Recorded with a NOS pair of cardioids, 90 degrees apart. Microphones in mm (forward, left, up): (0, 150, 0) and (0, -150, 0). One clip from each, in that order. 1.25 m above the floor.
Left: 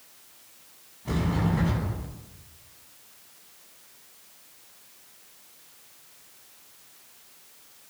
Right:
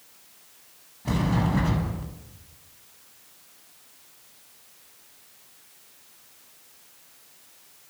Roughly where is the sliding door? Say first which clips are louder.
Right 2 dB; ahead right.